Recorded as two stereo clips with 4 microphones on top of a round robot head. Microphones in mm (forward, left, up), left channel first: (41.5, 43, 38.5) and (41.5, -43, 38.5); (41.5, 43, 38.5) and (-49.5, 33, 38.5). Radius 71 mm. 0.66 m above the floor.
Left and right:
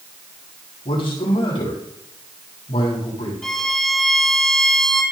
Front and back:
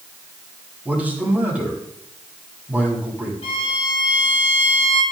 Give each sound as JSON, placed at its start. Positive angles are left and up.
{"t": 0.8, "sound": "a man speaking", "azimuth_deg": 110, "distance_m": 7.0}
{"t": 3.4, "sound": "a violin", "azimuth_deg": 5, "distance_m": 4.0}